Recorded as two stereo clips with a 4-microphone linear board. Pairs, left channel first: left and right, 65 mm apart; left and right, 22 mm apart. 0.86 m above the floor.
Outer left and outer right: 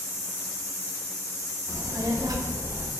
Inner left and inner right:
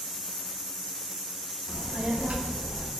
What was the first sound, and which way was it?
A child speaking, 50° right (ahead or behind).